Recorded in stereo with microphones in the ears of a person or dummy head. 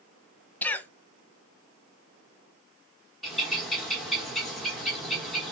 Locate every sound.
0.6 s a cough: 10° left (ahead or behind), 0.6 m
3.2 s a bird: centre (ahead or behind), 1.3 m